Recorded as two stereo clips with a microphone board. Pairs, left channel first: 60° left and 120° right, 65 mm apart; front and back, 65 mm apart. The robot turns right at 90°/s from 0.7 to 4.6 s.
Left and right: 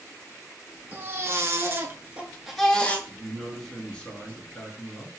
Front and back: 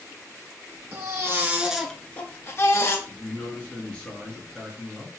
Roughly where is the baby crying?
Behind.